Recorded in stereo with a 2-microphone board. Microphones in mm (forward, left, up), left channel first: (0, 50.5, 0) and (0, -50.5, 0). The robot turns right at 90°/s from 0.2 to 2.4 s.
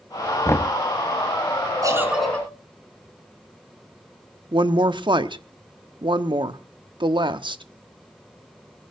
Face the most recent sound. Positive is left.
turn(degrees=-50)  # may be behind; listen again after turning